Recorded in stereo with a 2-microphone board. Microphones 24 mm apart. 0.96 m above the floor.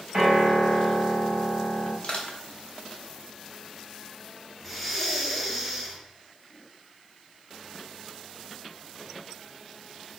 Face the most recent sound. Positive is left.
turn(degrees=0)  # may be behind; listen again after turning